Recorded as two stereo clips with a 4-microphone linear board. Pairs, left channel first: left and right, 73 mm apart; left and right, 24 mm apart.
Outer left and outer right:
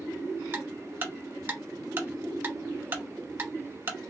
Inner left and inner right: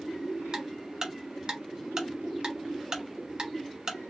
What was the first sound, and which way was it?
Ticking, 25° right (ahead or behind).